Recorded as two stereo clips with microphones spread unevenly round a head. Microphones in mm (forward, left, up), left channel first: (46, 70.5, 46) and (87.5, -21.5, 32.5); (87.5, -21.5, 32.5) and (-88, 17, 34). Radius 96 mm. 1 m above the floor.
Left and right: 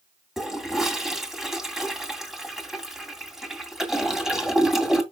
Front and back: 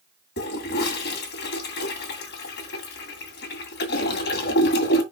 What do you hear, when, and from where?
0.4 s a toilet flushing: 20° left, 2.5 m